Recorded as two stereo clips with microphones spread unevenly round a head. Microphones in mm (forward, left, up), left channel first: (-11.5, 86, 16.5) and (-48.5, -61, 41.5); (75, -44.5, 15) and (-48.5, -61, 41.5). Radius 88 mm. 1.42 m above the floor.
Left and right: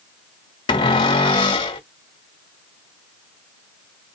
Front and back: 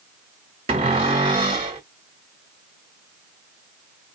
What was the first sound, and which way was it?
A cupboard door, 140° left.